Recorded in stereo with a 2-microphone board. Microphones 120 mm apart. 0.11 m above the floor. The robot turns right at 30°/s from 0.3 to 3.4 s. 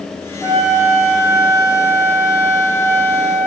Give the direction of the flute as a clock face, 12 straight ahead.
5 o'clock.